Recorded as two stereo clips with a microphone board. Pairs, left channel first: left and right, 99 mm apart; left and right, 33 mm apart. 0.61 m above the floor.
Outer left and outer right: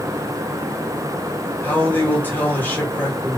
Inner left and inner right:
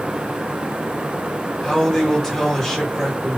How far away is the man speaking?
About 2 m.